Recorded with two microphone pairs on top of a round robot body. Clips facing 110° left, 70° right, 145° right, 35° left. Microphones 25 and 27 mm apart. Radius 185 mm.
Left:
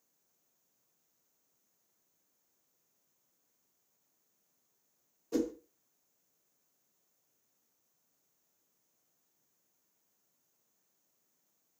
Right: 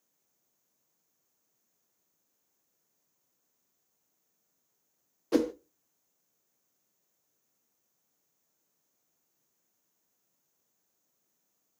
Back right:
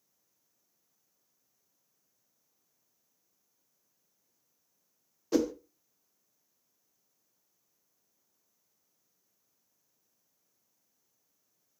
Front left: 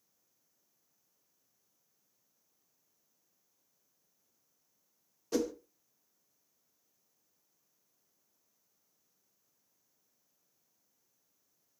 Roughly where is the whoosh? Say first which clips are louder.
Right 6 dB, back right 5 dB; right.